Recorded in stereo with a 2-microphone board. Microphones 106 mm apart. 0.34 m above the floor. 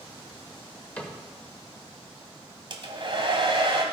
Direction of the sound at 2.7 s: 55° right (ahead or behind).